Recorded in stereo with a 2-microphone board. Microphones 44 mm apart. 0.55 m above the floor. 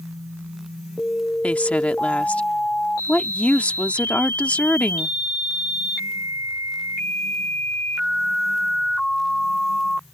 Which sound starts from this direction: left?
A woman speaking, at 1.4 s.